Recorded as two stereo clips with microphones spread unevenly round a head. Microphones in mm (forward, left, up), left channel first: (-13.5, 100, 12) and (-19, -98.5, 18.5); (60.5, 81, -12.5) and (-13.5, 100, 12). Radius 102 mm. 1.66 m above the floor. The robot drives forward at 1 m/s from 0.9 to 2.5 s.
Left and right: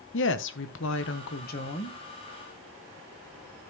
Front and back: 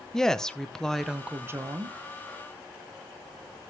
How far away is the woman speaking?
About 0.9 m.